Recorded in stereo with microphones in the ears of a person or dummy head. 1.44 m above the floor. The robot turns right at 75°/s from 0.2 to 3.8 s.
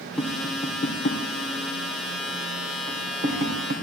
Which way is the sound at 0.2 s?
10° left (ahead or behind).